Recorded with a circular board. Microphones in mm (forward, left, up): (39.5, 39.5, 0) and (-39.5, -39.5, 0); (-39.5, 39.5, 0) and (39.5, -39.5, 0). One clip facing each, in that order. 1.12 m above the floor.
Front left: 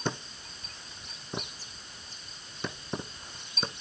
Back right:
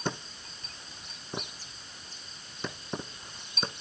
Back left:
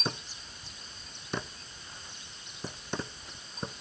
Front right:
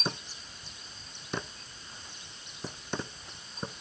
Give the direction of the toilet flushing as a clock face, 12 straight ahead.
No toilet flushing in this recording.